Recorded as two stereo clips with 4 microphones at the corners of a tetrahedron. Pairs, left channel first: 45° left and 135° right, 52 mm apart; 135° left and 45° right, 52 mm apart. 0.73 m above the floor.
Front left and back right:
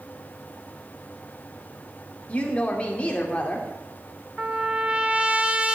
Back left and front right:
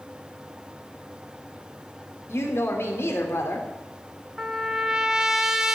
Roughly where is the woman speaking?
Left.